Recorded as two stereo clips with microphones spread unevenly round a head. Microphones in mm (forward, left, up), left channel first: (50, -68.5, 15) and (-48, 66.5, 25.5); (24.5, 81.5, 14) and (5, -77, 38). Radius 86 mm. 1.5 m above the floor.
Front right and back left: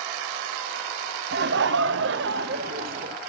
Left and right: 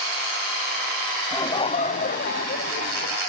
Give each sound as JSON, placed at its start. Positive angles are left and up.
{"t": 1.3, "sound": "laughter", "azimuth_deg": 155, "distance_m": 0.7}